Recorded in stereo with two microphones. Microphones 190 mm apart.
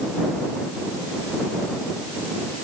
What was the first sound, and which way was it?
Only background noise.